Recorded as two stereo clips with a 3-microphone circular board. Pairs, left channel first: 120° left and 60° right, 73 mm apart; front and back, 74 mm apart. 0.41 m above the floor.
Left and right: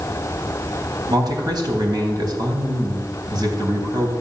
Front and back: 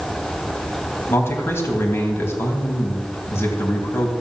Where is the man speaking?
50° right, 3.5 m.